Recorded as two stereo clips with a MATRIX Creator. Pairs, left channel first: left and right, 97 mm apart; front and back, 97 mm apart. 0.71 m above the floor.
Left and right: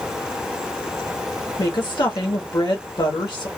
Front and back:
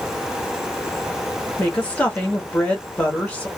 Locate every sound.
1.6 s a woman speaking: 70° left, 1.4 m